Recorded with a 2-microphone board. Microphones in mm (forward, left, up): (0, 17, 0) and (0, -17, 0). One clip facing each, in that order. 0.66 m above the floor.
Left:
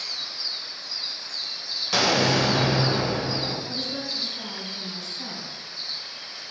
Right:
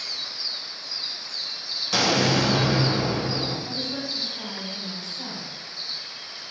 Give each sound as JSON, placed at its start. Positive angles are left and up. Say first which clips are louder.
{"t": 1.9, "sound": "an explosion", "louder": "even", "side_deg": 5, "distance_m": 0.6}
{"t": 3.6, "sound": "a woman speaking", "louder": "even", "side_deg": -20, "distance_m": 1.4}